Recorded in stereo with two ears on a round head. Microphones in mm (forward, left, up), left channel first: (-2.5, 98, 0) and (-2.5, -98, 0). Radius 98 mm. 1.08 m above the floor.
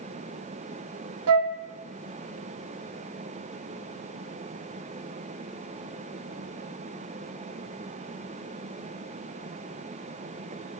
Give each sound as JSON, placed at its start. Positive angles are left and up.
{"t": 1.3, "sound": "a flute", "side_deg": -75, "distance_m": 0.8}